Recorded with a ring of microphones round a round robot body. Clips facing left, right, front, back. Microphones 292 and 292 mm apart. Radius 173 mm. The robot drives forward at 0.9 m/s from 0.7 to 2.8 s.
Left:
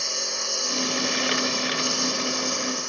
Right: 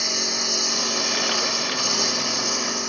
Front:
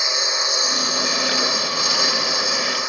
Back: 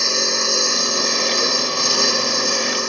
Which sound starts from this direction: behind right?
A lawn mower, at 0.0 s.